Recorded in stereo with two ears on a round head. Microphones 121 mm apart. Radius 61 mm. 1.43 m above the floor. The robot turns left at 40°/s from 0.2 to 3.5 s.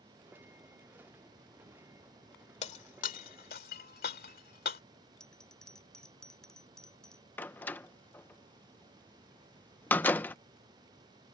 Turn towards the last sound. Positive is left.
turn(degrees=15)  # may be behind; listen again after turning